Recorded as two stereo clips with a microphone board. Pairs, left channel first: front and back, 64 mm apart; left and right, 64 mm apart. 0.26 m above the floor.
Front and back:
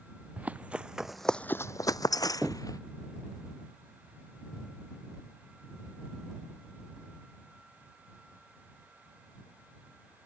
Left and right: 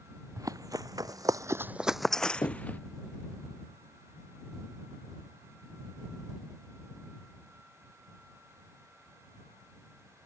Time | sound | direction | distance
0.4 | running footsteps | 115° right | ?
2.4 | knocking | 115° left | ?